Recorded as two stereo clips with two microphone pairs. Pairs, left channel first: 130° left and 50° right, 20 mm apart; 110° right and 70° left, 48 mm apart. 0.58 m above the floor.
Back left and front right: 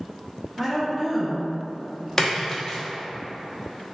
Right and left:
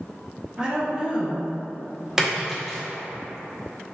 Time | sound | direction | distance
0.6 | a woman speaking | 20° left | 0.7 m
2.2 | a splash | 130° left | 0.7 m